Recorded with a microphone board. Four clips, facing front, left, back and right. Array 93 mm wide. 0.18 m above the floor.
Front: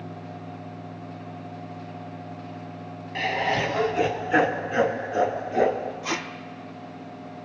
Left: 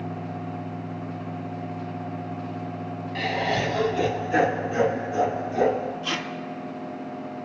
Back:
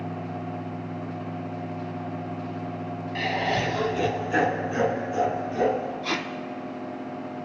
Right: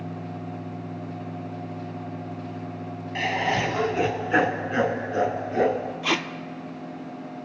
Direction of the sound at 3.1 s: 65° right.